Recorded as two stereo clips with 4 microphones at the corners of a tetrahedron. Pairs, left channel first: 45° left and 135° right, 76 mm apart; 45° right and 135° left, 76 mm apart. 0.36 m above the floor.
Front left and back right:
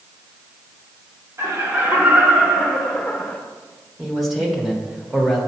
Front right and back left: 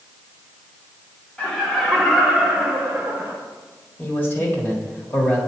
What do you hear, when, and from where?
1.4 s laughter: 115° right, 1.5 m; by 3.4 s 105° left, 1.3 m
4.0 s a man speaking: 45° right, 1.3 m